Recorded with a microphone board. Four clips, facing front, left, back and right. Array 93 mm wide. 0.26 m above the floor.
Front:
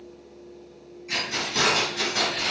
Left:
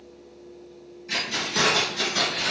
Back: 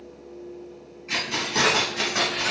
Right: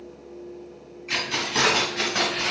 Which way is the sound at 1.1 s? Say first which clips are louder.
Right 2 dB, back 2 dB; 110° right.